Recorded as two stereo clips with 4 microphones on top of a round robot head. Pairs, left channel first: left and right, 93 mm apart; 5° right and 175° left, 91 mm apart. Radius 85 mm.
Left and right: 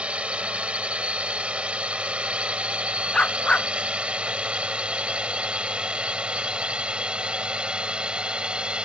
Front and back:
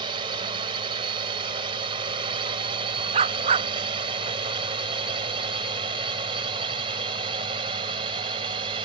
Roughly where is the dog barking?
Behind.